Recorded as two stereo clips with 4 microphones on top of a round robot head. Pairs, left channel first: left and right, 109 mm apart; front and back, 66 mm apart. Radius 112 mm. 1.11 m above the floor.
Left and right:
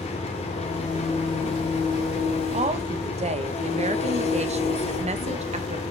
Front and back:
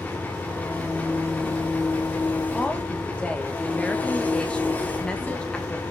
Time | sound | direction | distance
0.0 | an engine running | 65° left | 1.4 m
2.5 | a woman speaking | 80° right | 1.1 m